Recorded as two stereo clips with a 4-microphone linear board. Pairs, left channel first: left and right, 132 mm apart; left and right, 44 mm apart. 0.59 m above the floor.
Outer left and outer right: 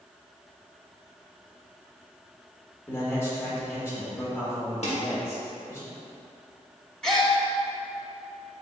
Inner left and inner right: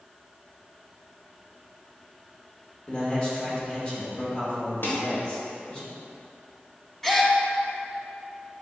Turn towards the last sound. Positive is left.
turn(degrees=5)  # may be behind; listen again after turning